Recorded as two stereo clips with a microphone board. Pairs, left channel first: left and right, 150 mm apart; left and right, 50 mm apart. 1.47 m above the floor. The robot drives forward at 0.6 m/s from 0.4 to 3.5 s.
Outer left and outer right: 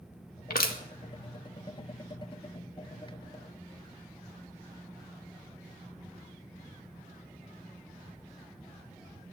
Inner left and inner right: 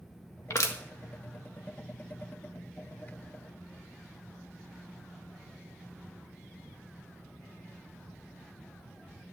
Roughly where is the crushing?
Left.